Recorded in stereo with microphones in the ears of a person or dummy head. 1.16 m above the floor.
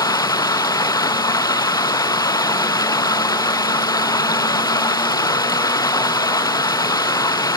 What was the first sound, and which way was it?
Running water, 25° left (ahead or behind).